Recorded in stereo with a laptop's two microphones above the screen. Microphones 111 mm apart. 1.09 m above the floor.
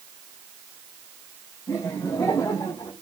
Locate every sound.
1.7 s laughter: 25° left (ahead or behind), 7 m; by 2.9 s 30° left (ahead or behind), 8.5 m